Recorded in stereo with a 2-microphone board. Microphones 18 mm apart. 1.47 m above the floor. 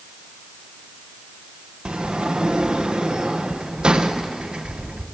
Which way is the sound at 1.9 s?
65° right (ahead or behind).